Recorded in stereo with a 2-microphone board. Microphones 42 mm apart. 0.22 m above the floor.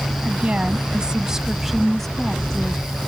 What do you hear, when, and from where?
0.2 s a woman speaking: 35° right (ahead or behind); by 3.1 s 25° left (ahead or behind)